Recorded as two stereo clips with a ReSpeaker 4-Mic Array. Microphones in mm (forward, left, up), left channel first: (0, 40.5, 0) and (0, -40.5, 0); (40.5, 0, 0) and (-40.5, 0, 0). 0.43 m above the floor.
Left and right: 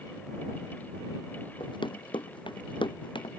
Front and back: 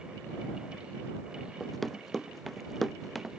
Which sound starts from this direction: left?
Running footsteps, at 1.6 s.